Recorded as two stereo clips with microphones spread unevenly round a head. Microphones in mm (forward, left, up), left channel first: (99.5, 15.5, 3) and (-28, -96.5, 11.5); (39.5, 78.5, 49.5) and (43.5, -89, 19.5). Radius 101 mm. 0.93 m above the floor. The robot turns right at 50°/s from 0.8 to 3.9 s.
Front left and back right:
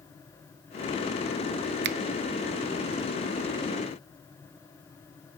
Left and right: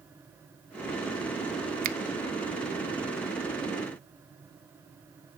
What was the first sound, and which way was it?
A finger snap, 125° right.